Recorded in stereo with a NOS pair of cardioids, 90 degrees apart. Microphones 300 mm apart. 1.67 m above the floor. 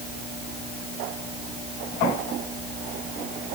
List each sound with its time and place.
Only background noise.